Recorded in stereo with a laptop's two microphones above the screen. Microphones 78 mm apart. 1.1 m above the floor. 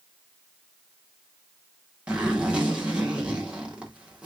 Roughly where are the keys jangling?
I don't hear keys jangling.